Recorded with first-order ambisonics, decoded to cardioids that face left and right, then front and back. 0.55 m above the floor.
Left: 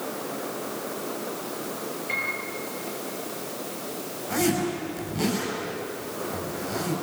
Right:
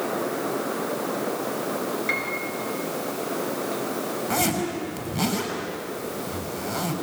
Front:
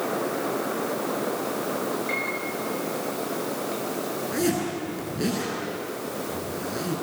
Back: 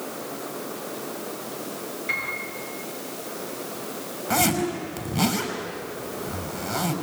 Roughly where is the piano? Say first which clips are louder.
Even, back 4 dB; right.